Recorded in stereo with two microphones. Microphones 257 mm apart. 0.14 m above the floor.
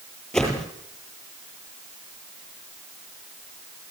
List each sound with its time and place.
0.3 s a whoosh: 5° left (ahead or behind), 8.5 m